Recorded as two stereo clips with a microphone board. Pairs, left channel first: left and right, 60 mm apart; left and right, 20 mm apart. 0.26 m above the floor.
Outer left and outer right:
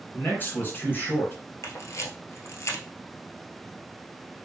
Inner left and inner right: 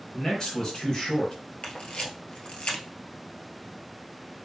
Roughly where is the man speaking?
Left.